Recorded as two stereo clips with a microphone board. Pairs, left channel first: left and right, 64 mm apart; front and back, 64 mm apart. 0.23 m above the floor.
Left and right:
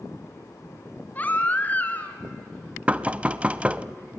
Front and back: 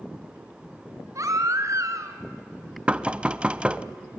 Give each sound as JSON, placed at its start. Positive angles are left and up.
{"t": 1.1, "sound": "a baby crying", "azimuth_deg": 150, "distance_m": 1.8}
{"t": 2.9, "sound": "knocking", "azimuth_deg": -135, "distance_m": 0.6}